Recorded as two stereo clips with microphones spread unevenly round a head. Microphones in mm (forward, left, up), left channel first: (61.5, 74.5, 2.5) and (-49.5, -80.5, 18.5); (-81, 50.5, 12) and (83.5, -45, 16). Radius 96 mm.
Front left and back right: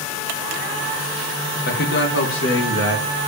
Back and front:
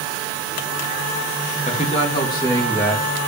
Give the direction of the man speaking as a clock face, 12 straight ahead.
9 o'clock.